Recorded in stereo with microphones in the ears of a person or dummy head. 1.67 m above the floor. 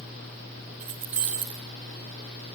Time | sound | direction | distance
0.8 | keys jangling | 5° right (ahead or behind) | 0.9 m